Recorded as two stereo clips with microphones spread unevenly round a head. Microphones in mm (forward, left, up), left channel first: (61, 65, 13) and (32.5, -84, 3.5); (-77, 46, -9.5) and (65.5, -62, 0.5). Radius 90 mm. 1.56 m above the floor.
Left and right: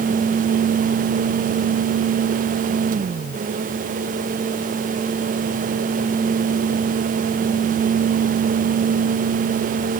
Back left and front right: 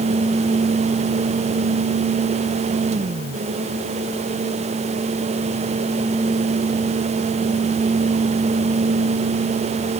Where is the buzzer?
No buzzer in this recording.